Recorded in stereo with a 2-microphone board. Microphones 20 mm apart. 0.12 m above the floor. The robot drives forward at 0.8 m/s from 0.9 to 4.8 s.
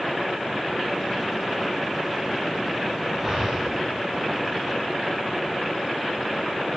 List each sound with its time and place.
3.2 s breathing: 20° right (ahead or behind), 9 m